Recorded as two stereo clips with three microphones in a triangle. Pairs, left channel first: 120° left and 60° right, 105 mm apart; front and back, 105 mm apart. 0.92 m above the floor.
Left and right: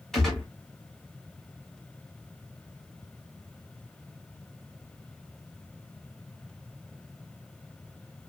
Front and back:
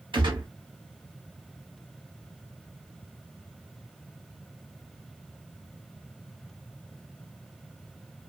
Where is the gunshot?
155° right, 1.4 m.